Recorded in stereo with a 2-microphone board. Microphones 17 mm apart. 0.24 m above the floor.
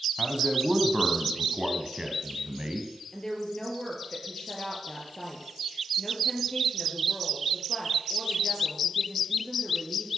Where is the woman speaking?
40° left (ahead or behind), 4 m.